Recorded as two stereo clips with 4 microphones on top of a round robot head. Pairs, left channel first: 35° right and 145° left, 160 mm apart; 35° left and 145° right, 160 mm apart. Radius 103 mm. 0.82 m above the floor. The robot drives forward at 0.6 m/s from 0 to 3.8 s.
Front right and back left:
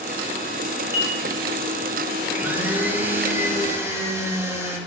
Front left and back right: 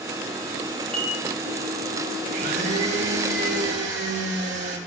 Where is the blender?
135° right, 4 m; by 4.8 s 140° right, 5 m.